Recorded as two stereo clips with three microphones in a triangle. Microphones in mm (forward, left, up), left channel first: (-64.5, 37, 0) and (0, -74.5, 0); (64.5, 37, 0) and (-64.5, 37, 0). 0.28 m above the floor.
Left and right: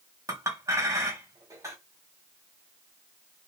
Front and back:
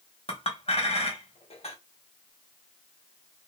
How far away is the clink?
About 0.7 m.